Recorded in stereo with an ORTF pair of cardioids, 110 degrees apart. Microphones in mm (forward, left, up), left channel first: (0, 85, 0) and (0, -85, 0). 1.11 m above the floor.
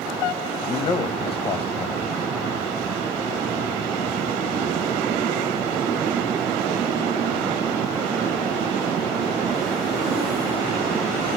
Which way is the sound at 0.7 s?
25° left.